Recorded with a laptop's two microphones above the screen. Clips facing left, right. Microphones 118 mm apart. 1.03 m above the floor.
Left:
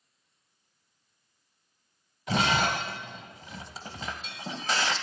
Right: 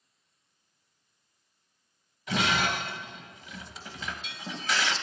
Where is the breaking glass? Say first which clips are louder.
Left 2 dB; 35° left (ahead or behind), 1.0 m.